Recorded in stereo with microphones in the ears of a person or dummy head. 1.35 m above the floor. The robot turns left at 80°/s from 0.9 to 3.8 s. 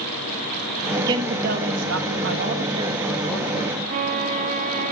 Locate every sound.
1.0 s a man speaking: 10° right, 1.6 m; by 3.8 s 120° left, 1.6 m
3.9 s a violin: 40° right (ahead or behind), 0.5 m